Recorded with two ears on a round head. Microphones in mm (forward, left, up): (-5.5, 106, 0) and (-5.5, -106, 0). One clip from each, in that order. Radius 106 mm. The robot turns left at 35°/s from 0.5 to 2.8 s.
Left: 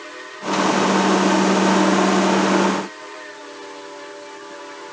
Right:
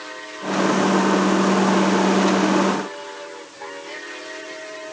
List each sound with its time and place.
Only background noise.